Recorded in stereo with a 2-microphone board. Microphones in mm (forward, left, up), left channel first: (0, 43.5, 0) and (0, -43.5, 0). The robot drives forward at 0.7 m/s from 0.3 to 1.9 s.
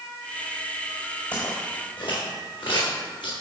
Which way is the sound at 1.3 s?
55° left (ahead or behind).